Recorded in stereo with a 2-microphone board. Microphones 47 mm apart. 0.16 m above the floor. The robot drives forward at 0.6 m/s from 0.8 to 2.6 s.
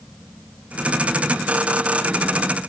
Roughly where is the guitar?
No guitar in this recording.